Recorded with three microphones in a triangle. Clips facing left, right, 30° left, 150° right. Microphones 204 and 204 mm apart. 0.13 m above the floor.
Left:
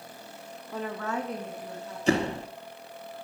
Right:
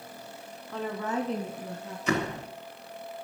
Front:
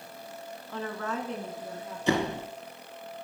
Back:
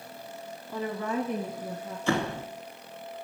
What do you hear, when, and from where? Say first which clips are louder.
0.7 s a woman speaking: right 1 dB, back 3 dB; 150° left, 1.2 m; by 2.0 s 75° right, 2.0 m
2.1 s a door slam: left 4 dB, front 1 dB; 80° left, 0.9 m